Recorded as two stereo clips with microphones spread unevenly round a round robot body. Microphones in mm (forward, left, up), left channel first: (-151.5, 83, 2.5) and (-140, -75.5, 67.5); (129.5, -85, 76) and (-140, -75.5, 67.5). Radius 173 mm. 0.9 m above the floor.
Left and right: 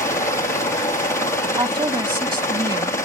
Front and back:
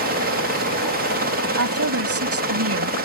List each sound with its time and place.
0.0 s a helicopter: 135° left
1.6 s a woman speaking: 150° right